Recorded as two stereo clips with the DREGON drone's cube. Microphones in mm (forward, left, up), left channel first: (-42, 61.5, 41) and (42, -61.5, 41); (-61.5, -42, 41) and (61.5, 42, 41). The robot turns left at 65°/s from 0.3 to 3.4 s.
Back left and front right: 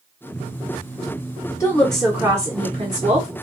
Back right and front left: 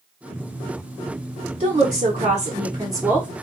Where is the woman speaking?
60° left, 1.0 m; by 3.3 s 50° right, 1.0 m.